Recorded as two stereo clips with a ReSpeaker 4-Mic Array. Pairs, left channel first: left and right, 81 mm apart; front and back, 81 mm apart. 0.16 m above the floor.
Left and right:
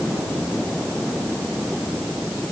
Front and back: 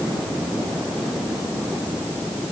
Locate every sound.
Only background noise.